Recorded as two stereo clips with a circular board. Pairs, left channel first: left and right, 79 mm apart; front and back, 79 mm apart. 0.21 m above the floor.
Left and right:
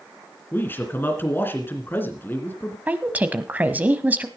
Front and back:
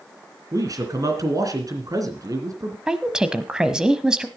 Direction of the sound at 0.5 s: 150° left.